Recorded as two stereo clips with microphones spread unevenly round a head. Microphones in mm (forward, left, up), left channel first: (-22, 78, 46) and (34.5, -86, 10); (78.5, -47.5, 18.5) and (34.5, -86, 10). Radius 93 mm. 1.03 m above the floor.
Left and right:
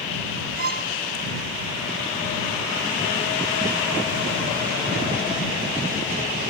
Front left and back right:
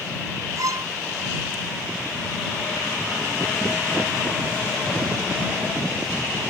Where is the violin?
110° right.